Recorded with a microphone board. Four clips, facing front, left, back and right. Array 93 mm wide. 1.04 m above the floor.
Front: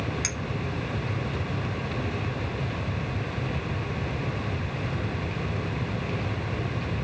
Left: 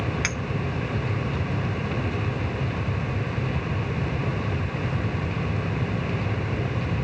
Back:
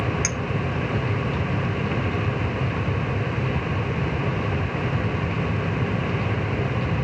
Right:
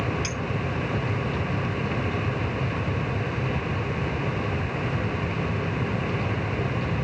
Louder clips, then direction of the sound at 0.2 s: Left 3 dB, back 5 dB; 110° left.